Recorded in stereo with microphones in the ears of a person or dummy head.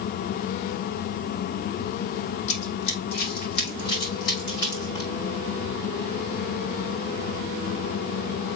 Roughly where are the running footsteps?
Left.